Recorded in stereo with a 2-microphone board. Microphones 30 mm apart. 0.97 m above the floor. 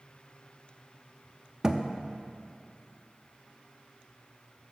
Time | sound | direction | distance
1.6 | a thud | 25° right (ahead or behind) | 0.5 m